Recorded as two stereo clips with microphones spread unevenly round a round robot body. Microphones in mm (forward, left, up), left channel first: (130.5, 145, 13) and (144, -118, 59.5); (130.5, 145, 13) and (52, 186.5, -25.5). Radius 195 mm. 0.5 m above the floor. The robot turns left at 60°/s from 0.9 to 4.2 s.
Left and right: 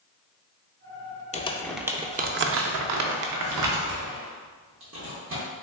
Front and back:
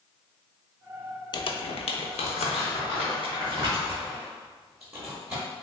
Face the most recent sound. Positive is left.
turn(degrees=-140)